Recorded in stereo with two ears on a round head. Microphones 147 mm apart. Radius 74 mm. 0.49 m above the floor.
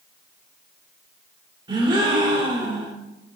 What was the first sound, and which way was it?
A gasp, 30° right (ahead or behind).